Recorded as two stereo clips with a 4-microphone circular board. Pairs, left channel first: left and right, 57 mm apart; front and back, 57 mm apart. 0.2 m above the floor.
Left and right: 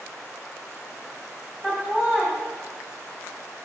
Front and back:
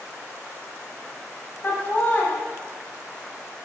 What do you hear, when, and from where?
1.6 s laughter: 25° right, 1.1 m